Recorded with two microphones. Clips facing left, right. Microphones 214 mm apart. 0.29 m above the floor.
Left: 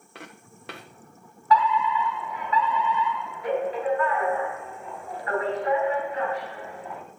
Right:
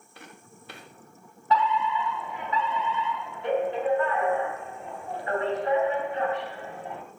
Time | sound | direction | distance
0.1 | footsteps | 75° left (ahead or behind) | 2.0 m
1.5 | a fire alarm | 25° right (ahead or behind) | 3 m